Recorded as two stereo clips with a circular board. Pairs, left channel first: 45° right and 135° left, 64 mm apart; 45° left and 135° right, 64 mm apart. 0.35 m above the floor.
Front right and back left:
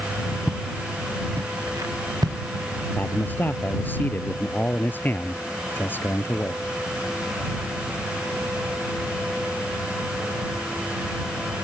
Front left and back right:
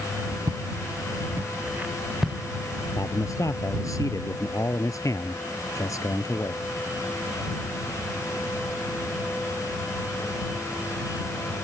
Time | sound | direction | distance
0.5 | footsteps | 155° right | ?
3.0 | a man speaking | 10° left | ?